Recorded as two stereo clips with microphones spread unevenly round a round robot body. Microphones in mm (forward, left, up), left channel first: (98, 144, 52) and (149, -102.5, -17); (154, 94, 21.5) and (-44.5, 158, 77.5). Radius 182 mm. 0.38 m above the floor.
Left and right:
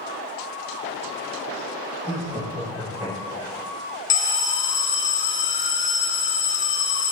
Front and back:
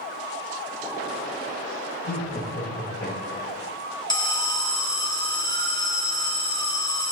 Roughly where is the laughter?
Ahead.